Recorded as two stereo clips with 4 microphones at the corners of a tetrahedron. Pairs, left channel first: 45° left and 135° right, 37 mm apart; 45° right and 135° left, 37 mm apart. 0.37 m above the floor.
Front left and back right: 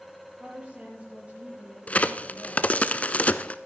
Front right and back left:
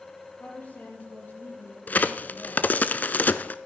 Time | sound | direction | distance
0.4 | a woman speaking | 75° right | 8.5 m
1.9 | a crack | 5° right | 0.6 m